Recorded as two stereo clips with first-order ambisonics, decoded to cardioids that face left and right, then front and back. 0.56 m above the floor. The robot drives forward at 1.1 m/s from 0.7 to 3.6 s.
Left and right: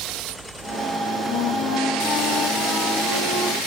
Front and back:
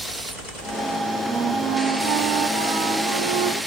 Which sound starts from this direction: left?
A flute, at 1.3 s.